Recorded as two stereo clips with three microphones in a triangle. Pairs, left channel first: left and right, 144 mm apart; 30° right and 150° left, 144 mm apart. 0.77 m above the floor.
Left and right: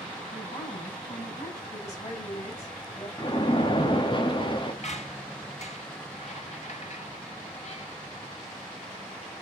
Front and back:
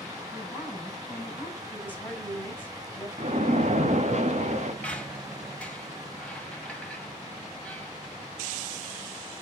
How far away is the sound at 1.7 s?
About 5.5 m.